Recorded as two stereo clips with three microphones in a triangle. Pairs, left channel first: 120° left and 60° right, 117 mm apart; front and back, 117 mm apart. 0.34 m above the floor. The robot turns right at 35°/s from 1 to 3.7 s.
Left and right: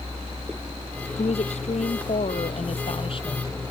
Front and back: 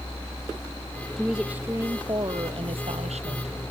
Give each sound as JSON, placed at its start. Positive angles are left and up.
{"t": 1.2, "sound": "a woman speaking", "azimuth_deg": 90}